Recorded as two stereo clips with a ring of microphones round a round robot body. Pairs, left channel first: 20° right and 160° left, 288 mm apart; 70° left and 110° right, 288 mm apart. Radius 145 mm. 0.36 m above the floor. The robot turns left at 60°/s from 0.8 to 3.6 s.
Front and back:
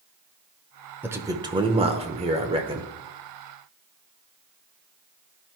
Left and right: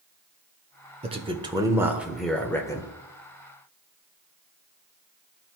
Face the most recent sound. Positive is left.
turn(degrees=75)